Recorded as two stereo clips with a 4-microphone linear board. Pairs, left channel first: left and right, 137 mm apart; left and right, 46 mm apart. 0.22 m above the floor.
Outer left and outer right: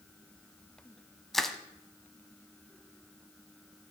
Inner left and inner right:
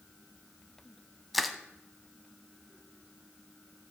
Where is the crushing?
5° left (ahead or behind), 0.5 m.